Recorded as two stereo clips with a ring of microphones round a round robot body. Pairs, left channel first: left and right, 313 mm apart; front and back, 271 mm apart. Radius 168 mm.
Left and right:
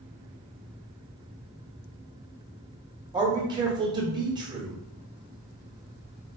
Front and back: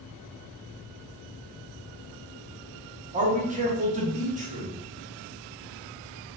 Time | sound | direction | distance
3.1 | a man speaking | 155° right | 1.0 m